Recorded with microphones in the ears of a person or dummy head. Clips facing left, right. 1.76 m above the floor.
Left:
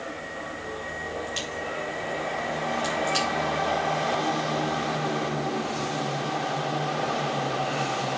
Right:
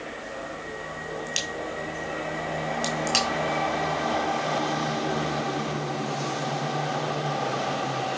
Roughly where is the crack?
Right.